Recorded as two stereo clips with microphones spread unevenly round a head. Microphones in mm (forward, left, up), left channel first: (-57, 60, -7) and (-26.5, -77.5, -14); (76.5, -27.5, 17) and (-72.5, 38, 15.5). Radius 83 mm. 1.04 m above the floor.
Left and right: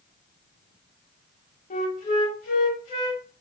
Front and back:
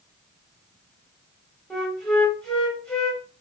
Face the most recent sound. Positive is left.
turn(degrees=60)